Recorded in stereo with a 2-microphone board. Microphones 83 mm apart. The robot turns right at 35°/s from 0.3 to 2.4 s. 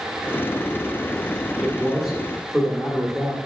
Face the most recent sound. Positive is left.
turn(degrees=0)  # may be behind; listen again after turning